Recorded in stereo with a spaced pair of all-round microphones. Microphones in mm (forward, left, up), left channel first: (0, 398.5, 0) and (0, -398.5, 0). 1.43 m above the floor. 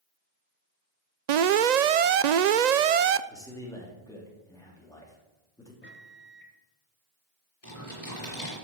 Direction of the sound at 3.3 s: 5° left (ahead or behind).